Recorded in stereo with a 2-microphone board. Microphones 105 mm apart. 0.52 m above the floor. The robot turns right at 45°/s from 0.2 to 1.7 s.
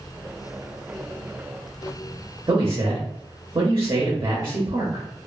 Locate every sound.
2.5 s a man speaking: 30° right (ahead or behind), 0.8 m